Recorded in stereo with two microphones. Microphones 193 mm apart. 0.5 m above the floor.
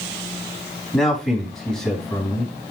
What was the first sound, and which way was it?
A man speaking, centre (ahead or behind).